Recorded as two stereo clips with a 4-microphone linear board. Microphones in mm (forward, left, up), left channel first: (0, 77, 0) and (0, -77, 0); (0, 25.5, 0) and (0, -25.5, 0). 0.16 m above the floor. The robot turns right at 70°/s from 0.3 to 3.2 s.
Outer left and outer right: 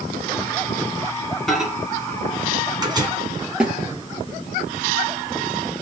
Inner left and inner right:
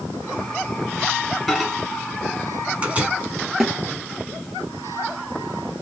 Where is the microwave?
Centre (ahead or behind), 1.2 m; by 3.1 s 25° right (ahead or behind), 1.2 m.